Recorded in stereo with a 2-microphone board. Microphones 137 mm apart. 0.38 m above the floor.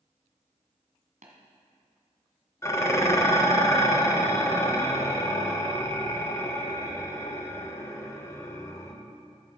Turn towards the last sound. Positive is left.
turn(degrees=25)  # may be behind; listen again after turning